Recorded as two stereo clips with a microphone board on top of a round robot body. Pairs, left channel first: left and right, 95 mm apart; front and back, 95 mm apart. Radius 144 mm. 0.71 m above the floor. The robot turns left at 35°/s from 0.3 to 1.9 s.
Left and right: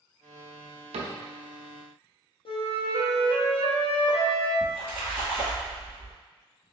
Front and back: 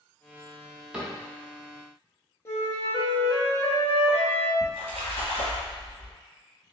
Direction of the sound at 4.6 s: 170° right.